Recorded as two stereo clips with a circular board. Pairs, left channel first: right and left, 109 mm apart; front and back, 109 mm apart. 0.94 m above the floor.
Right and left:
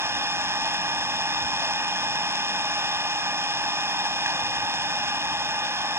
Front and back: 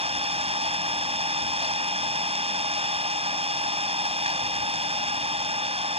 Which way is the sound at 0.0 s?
155° left.